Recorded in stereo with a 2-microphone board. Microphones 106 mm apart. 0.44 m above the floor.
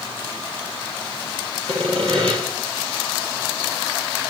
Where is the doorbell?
No doorbell in this recording.